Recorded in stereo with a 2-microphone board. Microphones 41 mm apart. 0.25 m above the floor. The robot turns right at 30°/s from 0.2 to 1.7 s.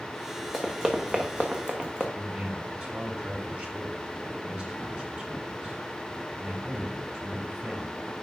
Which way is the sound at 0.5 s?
15° right (ahead or behind).